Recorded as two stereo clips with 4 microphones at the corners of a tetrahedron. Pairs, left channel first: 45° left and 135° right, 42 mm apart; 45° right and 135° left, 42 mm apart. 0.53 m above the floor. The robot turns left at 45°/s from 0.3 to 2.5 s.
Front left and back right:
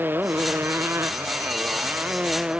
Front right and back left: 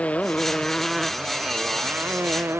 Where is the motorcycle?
105° right; by 2.6 s 155° left.